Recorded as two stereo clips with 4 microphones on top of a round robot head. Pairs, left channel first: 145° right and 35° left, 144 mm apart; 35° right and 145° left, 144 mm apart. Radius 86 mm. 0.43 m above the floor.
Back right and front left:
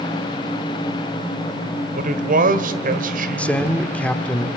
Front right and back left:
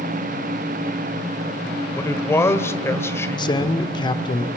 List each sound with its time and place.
1.9 s a man speaking: 35° left, 1.7 m
3.4 s a man speaking: 70° right, 1.2 m